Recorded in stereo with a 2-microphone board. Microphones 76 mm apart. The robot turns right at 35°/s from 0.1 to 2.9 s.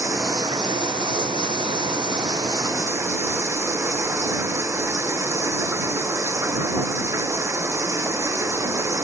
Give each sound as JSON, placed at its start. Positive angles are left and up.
{"t": 0.0, "sound": "running water", "azimuth_deg": -135}